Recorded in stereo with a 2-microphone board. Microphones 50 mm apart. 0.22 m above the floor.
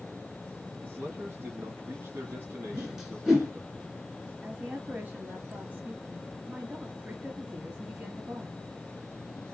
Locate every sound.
0.8 s a man speaking: 50° right (ahead or behind), 2.5 m
2.7 s a whoosh: 5° right (ahead or behind), 2.5 m
4.4 s a woman speaking: 35° right (ahead or behind), 1.7 m